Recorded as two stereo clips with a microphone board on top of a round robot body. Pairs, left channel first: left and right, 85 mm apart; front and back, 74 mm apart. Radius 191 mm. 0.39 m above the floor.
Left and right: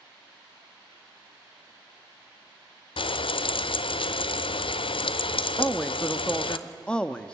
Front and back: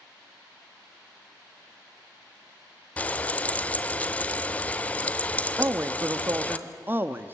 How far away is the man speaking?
About 1.1 m.